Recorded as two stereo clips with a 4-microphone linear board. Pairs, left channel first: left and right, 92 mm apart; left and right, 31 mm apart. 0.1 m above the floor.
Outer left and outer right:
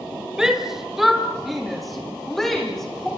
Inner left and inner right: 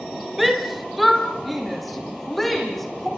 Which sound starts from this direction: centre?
A shout, at 0.4 s.